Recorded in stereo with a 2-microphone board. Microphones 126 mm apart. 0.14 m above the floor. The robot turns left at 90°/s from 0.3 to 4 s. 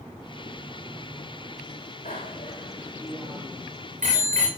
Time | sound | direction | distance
2.0 | a bicycle bell | 75° left (ahead or behind) | 9.5 m